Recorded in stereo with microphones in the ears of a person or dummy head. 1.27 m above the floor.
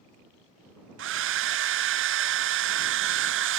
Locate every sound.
1.0 s a hair dryer: 60° right (ahead or behind)